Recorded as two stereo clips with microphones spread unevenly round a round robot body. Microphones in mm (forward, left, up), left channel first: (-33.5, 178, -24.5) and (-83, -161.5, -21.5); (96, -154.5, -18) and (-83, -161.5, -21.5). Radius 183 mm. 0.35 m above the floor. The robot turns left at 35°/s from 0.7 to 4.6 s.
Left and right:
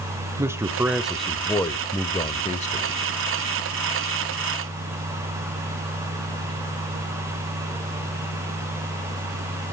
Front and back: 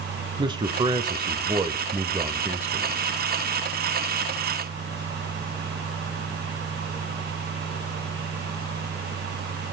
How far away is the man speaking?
About 1.0 m.